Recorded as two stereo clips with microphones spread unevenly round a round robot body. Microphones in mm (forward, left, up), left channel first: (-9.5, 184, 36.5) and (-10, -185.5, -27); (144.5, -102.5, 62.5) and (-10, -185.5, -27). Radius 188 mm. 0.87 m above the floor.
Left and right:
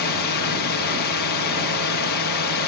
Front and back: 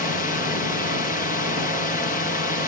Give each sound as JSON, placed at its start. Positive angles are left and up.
{"t": 0.0, "sound": "a drone", "azimuth_deg": 100}